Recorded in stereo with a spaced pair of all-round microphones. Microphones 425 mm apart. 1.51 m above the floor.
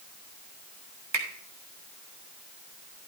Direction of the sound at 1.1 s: 75° right (ahead or behind).